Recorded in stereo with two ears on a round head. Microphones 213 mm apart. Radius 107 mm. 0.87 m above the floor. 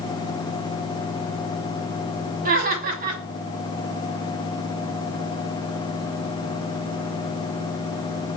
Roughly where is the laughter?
Right.